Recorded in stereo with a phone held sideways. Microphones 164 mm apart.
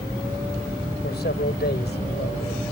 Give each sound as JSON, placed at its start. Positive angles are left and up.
{"t": 1.0, "sound": "a man speaking", "side_deg": 85}